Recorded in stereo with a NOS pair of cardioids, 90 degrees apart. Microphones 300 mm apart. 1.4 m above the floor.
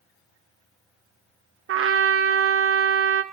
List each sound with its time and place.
1.7 s a trumpet: 50° right, 0.8 m